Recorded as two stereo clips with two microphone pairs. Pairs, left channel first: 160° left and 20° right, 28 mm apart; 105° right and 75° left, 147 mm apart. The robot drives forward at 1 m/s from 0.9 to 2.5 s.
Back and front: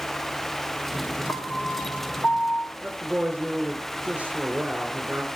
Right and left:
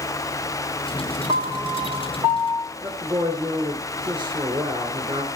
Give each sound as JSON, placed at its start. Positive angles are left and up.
{"t": 1.3, "sound": "a piano", "azimuth_deg": 125, "distance_m": 1.3}
{"t": 2.8, "sound": "a woman speaking", "azimuth_deg": 20, "distance_m": 3.5}